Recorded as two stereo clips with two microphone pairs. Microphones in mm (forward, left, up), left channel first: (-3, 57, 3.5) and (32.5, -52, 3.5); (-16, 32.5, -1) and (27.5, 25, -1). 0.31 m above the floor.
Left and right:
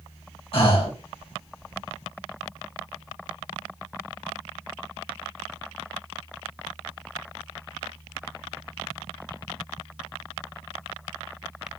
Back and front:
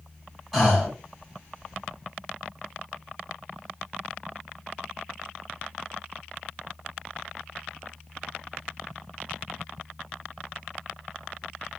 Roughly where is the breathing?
Left.